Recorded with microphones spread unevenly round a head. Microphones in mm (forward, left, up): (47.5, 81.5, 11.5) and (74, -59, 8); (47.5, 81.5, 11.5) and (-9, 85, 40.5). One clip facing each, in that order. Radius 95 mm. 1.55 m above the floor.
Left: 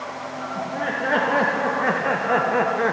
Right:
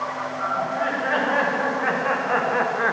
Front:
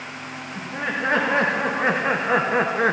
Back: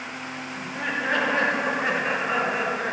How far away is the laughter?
About 2.5 m.